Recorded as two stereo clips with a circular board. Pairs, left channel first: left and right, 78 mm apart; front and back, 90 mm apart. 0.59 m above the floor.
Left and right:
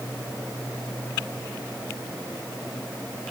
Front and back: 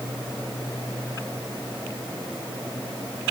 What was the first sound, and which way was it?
Only background noise.